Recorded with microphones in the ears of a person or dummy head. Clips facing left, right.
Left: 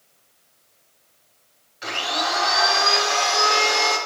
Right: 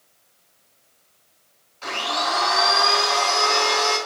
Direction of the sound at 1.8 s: 20° left (ahead or behind).